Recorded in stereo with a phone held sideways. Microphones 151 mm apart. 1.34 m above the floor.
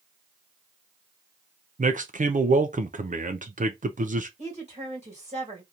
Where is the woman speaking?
50° right (ahead or behind), 2.5 m.